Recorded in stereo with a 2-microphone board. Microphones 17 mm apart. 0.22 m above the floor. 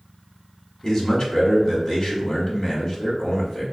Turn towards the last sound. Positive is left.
turn(degrees=45)  # may be behind; listen again after turning